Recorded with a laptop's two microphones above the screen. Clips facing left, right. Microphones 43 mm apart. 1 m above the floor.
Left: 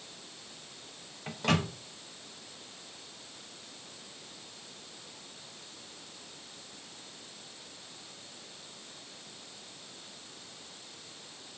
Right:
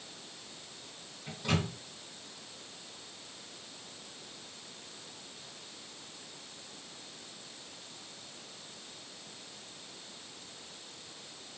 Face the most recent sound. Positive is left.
turn(degrees=85)